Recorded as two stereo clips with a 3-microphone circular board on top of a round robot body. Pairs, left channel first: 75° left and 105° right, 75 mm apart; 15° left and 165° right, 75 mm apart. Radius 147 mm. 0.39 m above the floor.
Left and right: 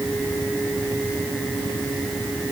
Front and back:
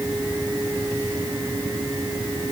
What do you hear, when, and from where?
Only background noise.